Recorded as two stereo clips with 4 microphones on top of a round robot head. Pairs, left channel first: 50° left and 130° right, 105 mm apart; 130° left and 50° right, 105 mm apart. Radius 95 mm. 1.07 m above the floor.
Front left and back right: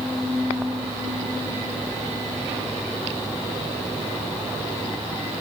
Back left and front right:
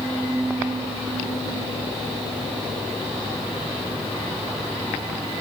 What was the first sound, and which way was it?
Only background noise.